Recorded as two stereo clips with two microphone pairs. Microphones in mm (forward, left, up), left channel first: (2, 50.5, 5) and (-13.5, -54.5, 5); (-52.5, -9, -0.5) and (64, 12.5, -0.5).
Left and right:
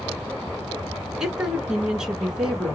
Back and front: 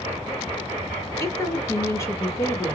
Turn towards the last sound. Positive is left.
turn(degrees=-175)